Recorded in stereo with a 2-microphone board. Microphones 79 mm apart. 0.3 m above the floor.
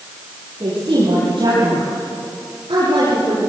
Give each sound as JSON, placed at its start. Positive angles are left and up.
{"t": 0.6, "sound": "a woman speaking", "side_deg": -65, "distance_m": 9.5}